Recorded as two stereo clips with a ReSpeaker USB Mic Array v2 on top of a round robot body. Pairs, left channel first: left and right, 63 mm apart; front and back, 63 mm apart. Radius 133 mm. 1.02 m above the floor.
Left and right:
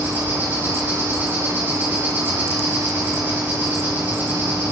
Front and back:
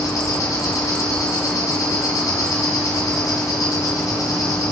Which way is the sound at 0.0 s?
25° right.